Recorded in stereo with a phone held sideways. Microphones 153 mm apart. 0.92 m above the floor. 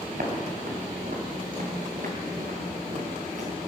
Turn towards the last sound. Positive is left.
turn(degrees=-55)  # may be behind; listen again after turning